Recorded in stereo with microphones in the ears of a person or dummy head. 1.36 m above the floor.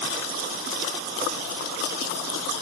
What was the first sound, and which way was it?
Only background noise.